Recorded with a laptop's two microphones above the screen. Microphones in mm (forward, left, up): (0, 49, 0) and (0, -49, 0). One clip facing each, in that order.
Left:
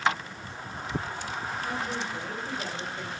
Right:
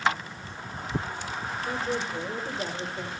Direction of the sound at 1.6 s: 35° right (ahead or behind).